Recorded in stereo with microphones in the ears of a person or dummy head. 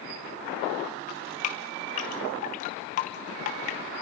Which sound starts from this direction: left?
Dripping, at 1.1 s.